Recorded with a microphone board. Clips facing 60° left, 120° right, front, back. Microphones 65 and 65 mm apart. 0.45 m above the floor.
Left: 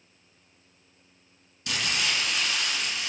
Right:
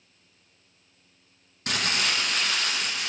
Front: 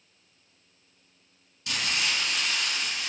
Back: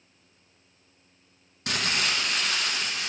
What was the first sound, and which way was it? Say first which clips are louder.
Crumpling: right 2 dB, back 2 dB; 155° right.